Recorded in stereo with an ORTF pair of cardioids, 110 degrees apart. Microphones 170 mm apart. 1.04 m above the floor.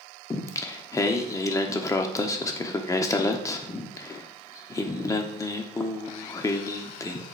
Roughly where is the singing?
Ahead.